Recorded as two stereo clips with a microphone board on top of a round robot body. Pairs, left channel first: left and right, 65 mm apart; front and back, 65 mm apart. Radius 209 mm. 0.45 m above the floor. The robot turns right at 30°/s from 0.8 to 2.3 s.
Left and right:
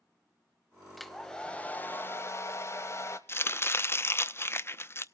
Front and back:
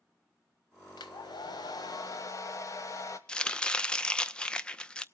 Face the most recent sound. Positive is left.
turn(degrees=70)